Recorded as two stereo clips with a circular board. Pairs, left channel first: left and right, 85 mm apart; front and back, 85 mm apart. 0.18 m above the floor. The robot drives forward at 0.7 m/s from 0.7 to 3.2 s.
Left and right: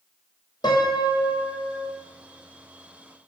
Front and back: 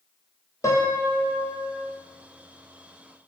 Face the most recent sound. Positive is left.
turn(degrees=120)